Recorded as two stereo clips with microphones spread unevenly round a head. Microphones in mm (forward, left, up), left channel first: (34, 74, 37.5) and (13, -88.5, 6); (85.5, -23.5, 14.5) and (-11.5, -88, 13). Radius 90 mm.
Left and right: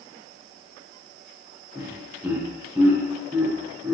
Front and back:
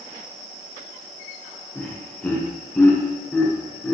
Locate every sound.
1.8 s laughter: 40° right, 0.5 m